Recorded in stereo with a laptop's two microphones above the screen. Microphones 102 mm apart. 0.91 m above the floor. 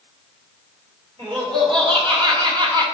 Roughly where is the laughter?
Right.